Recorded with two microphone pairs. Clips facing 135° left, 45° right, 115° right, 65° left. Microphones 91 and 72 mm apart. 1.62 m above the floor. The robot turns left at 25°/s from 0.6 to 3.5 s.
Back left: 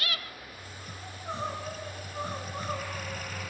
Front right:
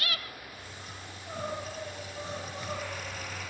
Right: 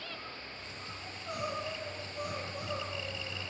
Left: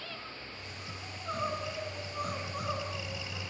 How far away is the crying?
About 8 m.